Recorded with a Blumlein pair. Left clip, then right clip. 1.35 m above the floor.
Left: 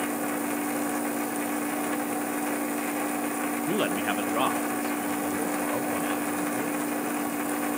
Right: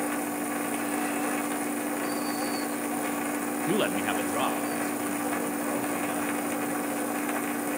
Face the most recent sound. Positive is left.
turn(degrees=10)